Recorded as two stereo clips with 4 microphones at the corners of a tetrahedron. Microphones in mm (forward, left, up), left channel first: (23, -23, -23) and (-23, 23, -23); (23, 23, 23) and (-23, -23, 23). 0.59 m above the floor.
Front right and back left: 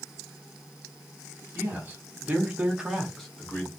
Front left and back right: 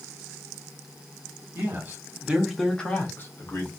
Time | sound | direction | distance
1.6 | a man speaking | 175° right | 1.1 m